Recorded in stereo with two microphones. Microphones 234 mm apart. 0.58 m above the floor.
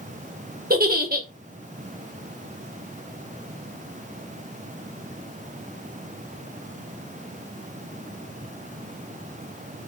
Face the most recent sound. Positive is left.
turn(degrees=-40)  # may be behind; listen again after turning